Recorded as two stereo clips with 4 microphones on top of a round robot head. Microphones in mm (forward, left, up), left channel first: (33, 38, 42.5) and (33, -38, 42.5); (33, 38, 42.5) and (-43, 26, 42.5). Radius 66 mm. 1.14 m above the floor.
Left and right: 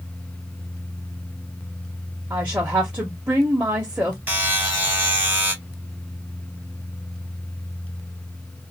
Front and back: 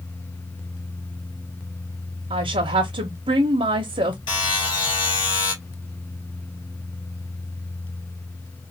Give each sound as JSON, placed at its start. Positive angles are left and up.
{"t": 2.3, "sound": "a woman speaking", "azimuth_deg": -165, "distance_m": 0.7}
{"t": 4.3, "sound": "a buzzer", "azimuth_deg": -25, "distance_m": 2.5}